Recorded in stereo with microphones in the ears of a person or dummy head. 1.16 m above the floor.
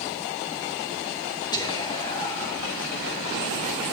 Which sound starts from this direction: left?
Whispering, at 1.5 s.